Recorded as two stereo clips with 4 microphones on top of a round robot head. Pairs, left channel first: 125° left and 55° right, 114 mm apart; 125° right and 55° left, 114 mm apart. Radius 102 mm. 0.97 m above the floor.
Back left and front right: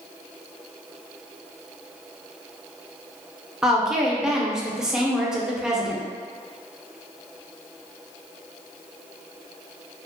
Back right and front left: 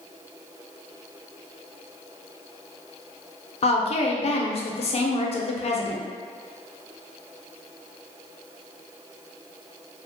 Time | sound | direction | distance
3.6 | a woman speaking | 140° right | 0.6 m